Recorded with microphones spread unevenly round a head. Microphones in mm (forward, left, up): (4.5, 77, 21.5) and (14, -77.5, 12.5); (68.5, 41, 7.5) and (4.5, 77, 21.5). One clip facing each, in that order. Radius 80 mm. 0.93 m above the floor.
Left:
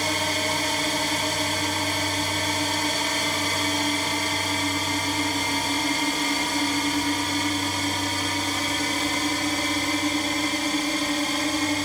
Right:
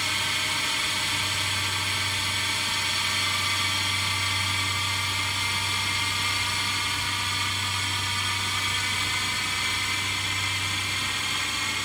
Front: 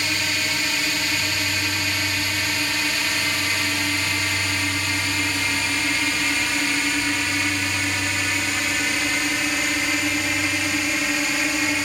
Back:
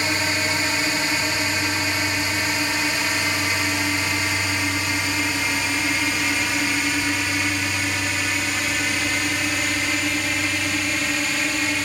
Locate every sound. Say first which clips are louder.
0.0 s a drone: left 9 dB, back 3 dB; 100° left; by 11.9 s 50° left